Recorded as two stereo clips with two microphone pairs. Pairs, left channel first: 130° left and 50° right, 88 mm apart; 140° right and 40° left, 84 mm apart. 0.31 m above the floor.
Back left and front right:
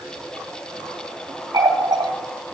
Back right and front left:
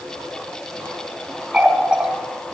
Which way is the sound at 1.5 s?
35° right.